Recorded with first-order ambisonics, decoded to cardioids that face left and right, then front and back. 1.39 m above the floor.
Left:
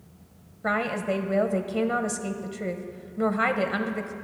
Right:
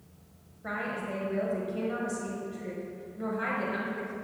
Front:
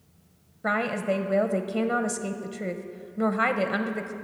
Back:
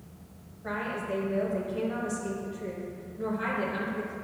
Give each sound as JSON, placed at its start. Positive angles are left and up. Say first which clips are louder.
{"t": 0.6, "sound": "a woman speaking", "louder": "left 8 dB, front 7 dB", "azimuth_deg": 35, "distance_m": 0.7}